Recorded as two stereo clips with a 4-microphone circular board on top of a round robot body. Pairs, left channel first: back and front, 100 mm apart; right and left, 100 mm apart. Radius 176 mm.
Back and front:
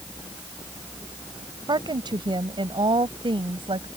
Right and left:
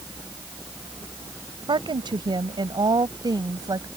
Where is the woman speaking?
45° left; by 3.9 s 35° left.